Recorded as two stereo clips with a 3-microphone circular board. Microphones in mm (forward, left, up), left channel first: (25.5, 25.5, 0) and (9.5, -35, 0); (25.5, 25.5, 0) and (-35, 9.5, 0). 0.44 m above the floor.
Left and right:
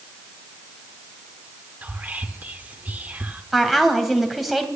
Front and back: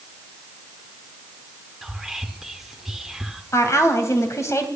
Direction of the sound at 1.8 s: 85° right.